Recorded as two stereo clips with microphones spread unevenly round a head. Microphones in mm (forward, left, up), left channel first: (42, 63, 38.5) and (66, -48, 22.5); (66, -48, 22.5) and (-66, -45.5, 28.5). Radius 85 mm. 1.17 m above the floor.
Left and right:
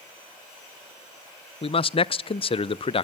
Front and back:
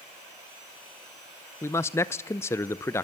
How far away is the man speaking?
About 0.6 m.